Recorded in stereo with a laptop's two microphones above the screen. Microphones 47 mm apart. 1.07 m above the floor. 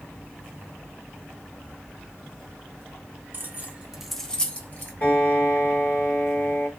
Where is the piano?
45° left (ahead or behind), 1.3 m.